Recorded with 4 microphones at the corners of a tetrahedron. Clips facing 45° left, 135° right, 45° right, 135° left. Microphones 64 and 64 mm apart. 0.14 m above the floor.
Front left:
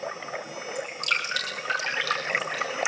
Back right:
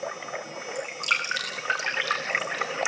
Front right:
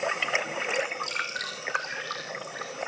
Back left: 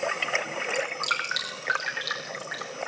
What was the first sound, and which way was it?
Dripping, 155° left.